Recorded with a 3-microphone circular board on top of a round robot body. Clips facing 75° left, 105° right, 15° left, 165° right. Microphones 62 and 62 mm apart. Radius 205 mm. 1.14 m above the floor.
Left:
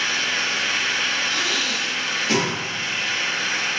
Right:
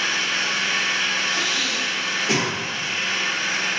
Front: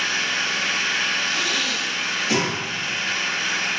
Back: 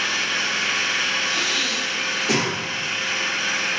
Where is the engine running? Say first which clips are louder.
Even, even; 170° left, 1.4 m.